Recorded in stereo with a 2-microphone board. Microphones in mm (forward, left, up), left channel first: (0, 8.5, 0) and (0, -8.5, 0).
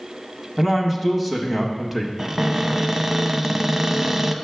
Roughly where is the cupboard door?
Right.